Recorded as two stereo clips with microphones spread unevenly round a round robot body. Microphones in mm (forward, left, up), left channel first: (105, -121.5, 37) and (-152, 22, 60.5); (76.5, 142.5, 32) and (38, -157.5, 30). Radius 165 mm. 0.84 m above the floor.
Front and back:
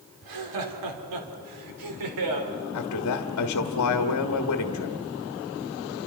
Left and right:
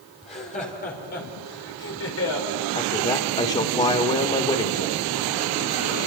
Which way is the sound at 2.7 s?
15° left.